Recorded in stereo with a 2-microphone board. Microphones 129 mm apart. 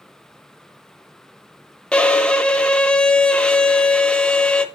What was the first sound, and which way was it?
A violin, 10° left (ahead or behind).